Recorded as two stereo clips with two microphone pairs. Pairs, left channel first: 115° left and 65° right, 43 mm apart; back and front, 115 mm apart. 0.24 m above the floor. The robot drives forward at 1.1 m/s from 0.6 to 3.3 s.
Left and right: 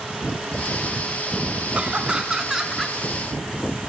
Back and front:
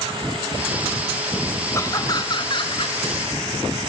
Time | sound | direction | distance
1.7 | laughter | 120° right | 2 m